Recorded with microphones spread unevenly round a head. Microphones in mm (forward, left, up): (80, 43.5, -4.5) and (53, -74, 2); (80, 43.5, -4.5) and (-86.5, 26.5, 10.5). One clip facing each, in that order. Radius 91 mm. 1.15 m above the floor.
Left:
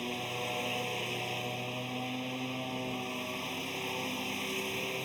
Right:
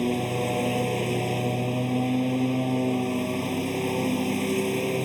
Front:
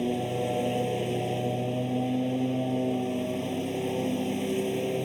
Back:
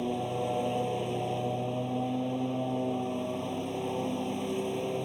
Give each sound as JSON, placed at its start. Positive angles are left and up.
{"t": 0.0, "sound": "a lawn mower", "azimuth_deg": -70}